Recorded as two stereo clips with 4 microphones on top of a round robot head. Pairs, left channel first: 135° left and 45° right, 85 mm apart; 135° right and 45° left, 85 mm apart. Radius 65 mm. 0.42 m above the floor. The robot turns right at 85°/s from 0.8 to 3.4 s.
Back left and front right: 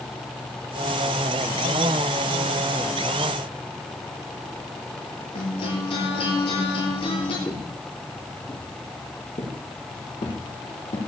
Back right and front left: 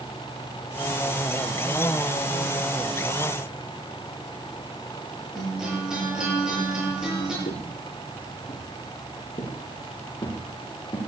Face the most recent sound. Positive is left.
turn(degrees=160)